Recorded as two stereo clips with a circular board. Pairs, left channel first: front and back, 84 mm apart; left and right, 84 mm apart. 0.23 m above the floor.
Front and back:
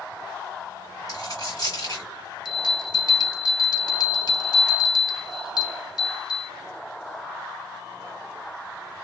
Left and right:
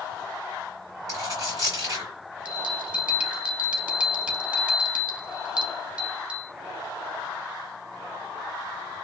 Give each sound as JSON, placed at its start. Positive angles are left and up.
{"t": 1.1, "sound": "a dropped coin", "azimuth_deg": -45, "distance_m": 2.5}
{"t": 2.5, "sound": "a bell", "azimuth_deg": -15, "distance_m": 0.7}